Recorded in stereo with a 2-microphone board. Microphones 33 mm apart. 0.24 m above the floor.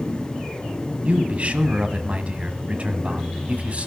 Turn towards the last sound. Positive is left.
turn(degrees=-40)  # may be behind; listen again after turning